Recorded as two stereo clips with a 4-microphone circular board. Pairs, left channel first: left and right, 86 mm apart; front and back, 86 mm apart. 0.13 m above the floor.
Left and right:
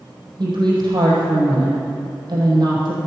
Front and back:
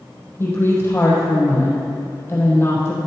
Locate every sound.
0.4 s a woman speaking: 60° right, 4.5 m